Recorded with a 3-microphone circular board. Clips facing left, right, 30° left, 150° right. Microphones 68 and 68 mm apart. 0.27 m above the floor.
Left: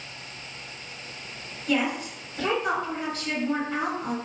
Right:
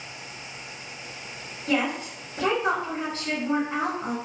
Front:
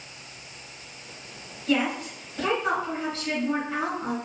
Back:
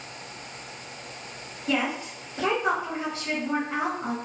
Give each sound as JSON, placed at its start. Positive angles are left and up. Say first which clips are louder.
{"t": 1.7, "sound": "a woman speaking", "louder": "even, front 2 dB", "azimuth_deg": -95, "distance_m": 1.3}